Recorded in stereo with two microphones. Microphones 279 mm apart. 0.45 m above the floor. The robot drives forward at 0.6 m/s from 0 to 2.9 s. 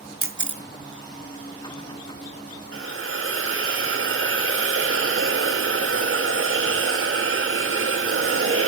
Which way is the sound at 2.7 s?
55° right (ahead or behind).